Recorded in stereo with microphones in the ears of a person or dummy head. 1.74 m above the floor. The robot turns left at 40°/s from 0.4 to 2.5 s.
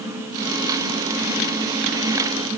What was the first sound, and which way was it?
Only background noise.